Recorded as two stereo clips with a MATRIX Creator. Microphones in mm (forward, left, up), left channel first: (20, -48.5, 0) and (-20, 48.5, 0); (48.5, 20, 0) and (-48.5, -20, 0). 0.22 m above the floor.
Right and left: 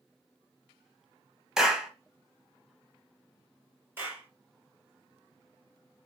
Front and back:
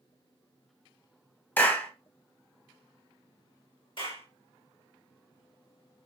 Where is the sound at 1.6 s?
40° left, 0.8 m.